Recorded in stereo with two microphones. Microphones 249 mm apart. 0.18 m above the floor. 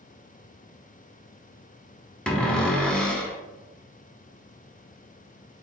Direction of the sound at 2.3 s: 5° left (ahead or behind).